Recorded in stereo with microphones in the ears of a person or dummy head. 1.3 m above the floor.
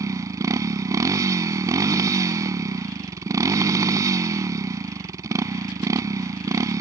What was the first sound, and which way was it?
A motorcycle, 15° right (ahead or behind).